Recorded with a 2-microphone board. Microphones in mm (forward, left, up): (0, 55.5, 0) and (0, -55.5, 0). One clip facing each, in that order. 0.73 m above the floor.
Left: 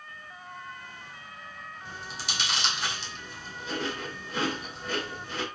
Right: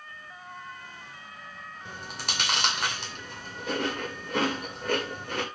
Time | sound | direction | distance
1.9 | chewing | 55° right (ahead or behind) | 2 m